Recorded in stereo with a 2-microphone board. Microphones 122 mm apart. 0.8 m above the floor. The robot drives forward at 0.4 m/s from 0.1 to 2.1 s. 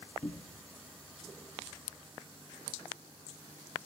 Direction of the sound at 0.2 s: 55° left (ahead or behind).